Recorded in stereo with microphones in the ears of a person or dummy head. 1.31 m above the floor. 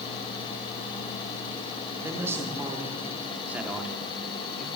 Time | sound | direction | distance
2.0 | a man speaking | 15° right (ahead or behind) | 5 m